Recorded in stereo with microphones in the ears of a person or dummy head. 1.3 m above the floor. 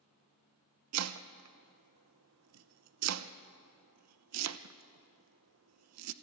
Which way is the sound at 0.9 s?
90° right.